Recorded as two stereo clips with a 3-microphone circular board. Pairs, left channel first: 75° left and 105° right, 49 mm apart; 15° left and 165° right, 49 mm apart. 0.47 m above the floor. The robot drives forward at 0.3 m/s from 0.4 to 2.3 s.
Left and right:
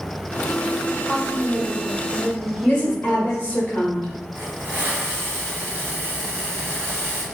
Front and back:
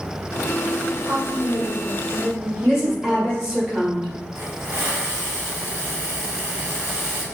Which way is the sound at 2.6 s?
120° left.